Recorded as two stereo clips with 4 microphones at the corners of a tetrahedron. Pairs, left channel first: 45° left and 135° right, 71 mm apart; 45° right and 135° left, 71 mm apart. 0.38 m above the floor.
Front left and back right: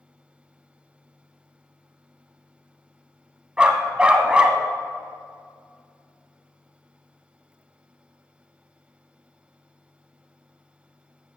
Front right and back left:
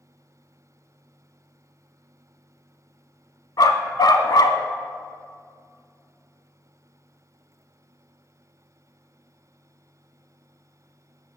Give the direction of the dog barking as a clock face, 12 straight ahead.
2 o'clock.